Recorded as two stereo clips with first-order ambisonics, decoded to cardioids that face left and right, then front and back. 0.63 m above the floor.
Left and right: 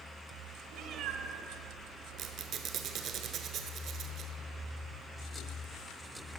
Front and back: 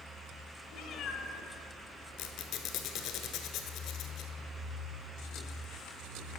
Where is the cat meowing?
50° right, 0.9 m.